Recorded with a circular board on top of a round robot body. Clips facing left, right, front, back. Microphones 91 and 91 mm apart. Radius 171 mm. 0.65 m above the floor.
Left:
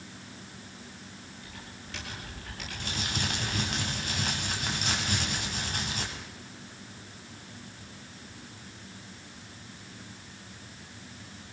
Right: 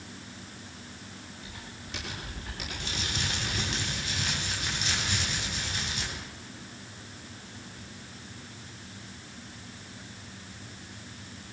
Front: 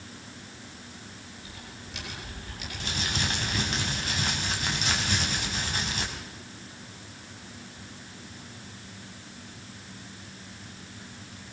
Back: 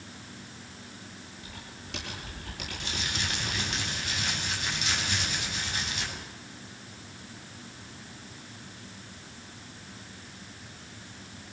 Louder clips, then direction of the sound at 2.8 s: Left 2 dB, front 4 dB; 50° left.